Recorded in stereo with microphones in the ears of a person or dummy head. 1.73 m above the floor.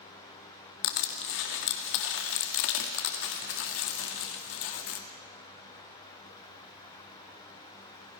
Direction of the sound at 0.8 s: 60° left (ahead or behind).